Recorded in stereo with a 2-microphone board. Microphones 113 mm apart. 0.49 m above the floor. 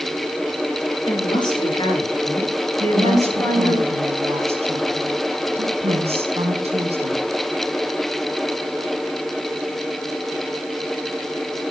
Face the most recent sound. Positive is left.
turn(degrees=-65)  # may be behind; listen again after turning